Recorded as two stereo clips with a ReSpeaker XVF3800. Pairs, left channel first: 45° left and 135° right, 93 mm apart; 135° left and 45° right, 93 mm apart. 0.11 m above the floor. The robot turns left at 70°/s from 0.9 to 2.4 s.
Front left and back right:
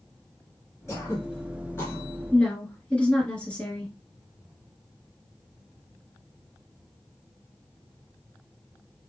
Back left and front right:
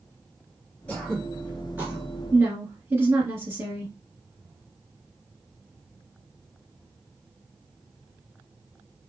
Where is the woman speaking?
10° right, 1.5 m; by 3.9 s 20° right, 1.5 m.